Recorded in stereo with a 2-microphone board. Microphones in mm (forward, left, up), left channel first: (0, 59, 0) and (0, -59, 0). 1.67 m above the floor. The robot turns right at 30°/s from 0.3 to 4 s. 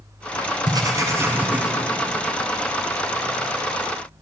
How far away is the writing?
About 0.6 m.